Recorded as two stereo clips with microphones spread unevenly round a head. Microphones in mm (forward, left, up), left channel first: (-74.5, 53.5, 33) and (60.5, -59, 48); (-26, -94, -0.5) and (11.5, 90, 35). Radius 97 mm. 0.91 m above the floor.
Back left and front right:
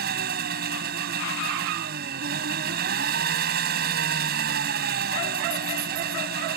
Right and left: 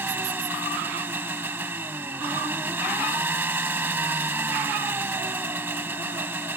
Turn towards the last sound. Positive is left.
turn(degrees=0)